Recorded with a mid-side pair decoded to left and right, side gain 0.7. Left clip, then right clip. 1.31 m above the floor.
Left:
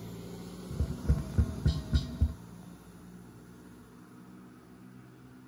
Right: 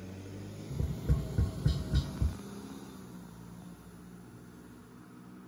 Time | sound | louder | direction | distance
0.7 | tapping | left 1 dB | 10° left | 0.6 m